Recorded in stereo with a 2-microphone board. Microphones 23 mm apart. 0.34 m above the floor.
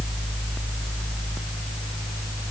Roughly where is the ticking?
No ticking in this recording.